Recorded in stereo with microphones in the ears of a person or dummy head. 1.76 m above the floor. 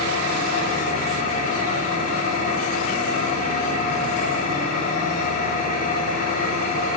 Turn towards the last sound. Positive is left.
turn(degrees=50)  # may be behind; listen again after turning